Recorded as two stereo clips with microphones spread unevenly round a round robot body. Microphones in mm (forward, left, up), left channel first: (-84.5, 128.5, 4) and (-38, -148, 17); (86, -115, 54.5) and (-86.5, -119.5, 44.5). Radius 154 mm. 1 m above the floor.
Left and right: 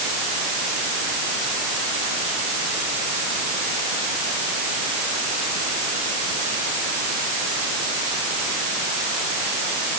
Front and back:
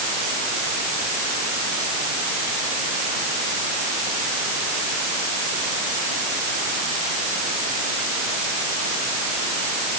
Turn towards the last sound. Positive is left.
No sound to turn to.